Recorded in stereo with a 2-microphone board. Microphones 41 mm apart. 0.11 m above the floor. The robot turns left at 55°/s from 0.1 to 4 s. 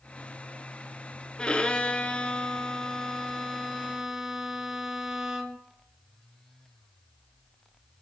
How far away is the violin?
About 0.5 m.